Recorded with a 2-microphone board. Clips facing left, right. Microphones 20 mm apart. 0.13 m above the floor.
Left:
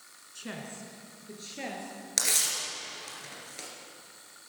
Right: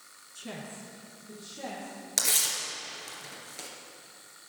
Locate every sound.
0.3 s a woman speaking: 15° left (ahead or behind), 1.7 m; by 1.9 s 60° left (ahead or behind), 3.5 m
2.2 s tearing paper: 5° left (ahead or behind), 2.5 m